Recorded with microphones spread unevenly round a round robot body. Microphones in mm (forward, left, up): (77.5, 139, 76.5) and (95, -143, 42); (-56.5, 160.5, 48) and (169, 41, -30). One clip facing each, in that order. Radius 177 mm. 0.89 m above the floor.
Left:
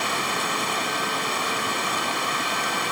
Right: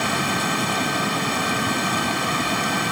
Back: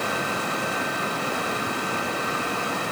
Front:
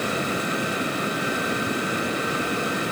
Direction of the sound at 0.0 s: 110° right.